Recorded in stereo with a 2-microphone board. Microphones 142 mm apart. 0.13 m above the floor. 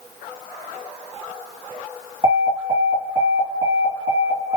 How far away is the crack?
I don't hear a crack.